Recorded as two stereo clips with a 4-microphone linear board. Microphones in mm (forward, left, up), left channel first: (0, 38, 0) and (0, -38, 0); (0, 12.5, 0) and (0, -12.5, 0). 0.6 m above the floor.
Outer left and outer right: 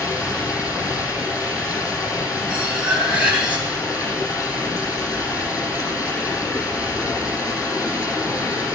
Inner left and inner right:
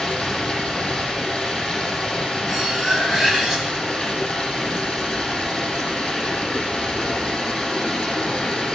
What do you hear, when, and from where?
0.0 s running water: 40° left (ahead or behind), 6 m
2.5 s cutlery clinking: 15° right (ahead or behind), 3 m